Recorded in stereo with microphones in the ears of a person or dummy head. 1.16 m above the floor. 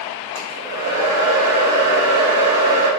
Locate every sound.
0.3 s a hair dryer: 50° right (ahead or behind), 1.9 m